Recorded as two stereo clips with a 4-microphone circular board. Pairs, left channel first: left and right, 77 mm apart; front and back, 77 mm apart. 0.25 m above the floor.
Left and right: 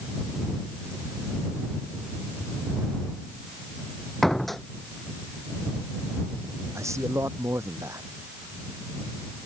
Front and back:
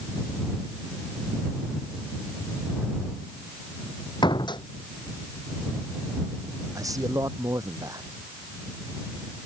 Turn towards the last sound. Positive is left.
turn(degrees=-140)